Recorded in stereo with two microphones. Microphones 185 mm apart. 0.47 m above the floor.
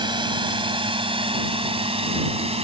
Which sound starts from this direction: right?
A drone, at 0.0 s.